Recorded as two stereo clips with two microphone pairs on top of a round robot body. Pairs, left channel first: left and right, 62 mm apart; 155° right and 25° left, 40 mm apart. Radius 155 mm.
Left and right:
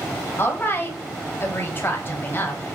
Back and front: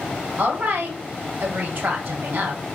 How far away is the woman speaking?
About 1.6 m.